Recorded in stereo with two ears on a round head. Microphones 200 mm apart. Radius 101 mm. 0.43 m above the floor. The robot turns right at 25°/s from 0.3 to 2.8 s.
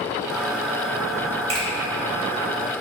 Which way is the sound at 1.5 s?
25° right (ahead or behind).